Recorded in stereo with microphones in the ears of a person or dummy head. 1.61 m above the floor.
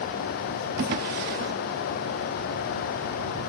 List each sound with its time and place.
0.8 s a drawer: 45° right (ahead or behind)